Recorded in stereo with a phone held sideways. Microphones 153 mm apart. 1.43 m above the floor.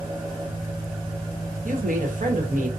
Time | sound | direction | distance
0.0 | an engine running | 25° right (ahead or behind) | 0.9 m
1.6 | a woman speaking | 60° right (ahead or behind) | 1.0 m